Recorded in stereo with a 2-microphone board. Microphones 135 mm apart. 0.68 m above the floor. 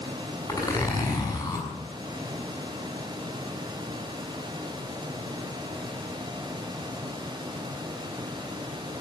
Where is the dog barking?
No dog barking in this recording.